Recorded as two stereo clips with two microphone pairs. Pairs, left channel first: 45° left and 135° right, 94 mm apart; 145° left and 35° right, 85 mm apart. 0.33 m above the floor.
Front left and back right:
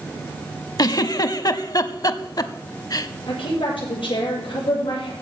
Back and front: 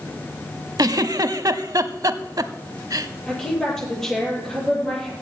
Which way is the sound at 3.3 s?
60° left.